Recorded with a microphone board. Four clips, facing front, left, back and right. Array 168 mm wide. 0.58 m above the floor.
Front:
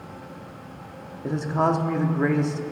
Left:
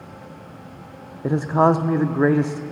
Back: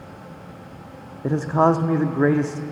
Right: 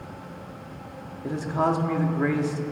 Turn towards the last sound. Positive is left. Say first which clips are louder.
# left 7 dB, back 5 dB
turn(degrees=125)